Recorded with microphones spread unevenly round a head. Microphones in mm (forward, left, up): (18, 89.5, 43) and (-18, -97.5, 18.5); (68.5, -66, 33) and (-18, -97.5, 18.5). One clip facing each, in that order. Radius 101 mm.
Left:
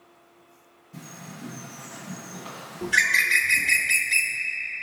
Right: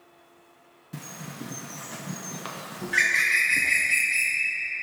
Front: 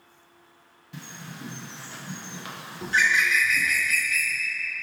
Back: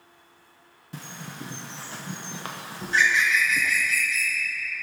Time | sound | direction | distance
0.9 | a bird | 115° right | 1.1 m
2.8 | a bird | 70° left | 0.7 m